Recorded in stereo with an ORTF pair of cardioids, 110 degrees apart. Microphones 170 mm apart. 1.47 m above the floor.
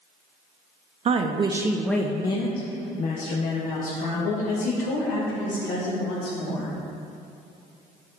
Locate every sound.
1.1 s a woman speaking: 45° right, 0.8 m; by 6.7 s 75° left, 3.5 m